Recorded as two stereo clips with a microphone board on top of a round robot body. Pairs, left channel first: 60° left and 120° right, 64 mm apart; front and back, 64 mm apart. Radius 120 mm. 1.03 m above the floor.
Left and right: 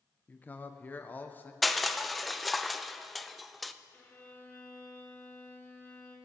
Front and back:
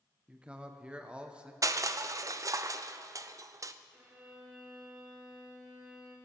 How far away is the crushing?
About 0.7 m.